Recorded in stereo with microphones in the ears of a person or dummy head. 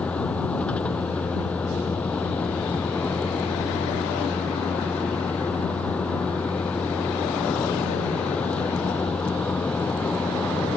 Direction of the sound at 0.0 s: 10° left (ahead or behind).